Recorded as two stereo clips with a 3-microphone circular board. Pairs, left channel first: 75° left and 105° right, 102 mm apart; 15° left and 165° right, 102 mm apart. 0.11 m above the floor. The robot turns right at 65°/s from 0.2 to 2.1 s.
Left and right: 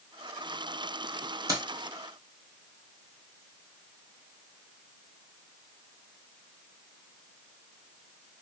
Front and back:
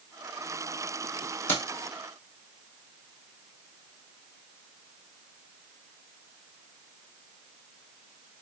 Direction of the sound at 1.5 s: 55° right.